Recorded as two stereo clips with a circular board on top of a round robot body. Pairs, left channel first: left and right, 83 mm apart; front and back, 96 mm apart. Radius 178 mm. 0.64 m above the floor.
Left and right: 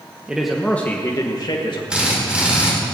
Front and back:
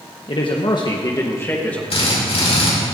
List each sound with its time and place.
0.3 s a man speaking: 15° right, 1.4 m; by 1.8 s 75° left, 1.7 m
1.9 s a drill: 10° right, 5 m